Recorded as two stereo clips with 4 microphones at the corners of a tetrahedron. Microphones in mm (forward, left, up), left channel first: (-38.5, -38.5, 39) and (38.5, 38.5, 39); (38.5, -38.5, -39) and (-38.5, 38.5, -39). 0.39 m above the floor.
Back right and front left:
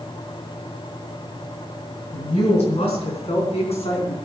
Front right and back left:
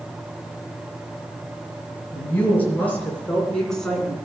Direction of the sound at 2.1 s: 115° right.